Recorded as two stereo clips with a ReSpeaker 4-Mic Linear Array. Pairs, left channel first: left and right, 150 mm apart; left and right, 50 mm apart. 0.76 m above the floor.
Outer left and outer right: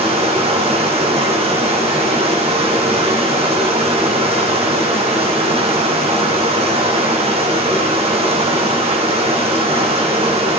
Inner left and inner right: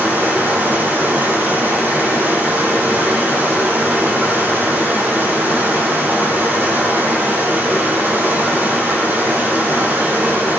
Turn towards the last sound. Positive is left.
turn(degrees=-40)  # may be behind; listen again after turning